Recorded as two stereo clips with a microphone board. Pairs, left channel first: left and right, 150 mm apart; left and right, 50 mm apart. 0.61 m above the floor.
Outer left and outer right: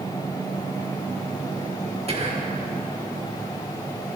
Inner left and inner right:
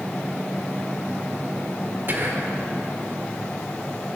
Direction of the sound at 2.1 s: 40° right (ahead or behind).